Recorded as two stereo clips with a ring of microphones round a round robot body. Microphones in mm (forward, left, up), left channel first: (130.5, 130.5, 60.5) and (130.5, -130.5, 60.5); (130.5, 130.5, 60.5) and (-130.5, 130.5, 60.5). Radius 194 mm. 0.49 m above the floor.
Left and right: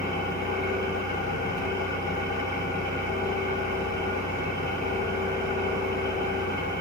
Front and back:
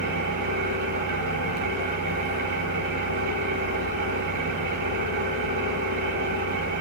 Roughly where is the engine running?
Behind.